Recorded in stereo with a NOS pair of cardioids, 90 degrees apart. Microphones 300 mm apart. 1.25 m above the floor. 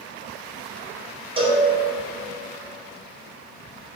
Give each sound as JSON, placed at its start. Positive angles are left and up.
{"t": 1.4, "sound": "a cowbell", "azimuth_deg": -20, "distance_m": 1.5}